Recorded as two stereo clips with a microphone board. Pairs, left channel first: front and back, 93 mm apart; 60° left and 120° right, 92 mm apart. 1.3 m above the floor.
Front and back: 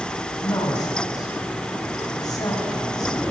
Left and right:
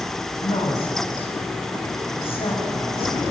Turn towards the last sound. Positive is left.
turn(degrees=50)